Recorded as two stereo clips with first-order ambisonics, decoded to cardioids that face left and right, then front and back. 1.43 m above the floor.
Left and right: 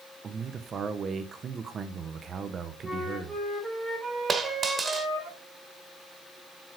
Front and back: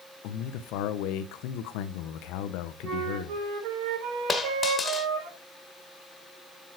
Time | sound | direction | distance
0.2 | a man speaking | 25° right | 1.2 m
2.8 | a flute | 170° right | 4.5 m
4.3 | a dropped coin | 45° right | 1.2 m